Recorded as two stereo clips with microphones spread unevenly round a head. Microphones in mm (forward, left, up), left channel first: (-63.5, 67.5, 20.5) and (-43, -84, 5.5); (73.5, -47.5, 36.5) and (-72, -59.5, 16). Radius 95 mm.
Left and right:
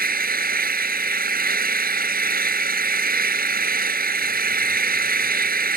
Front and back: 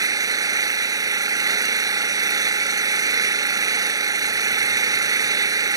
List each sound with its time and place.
0.0 s an engine running: 110° right